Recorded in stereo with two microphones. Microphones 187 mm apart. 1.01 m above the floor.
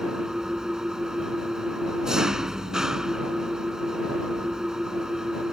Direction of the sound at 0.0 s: 5° right (ahead or behind).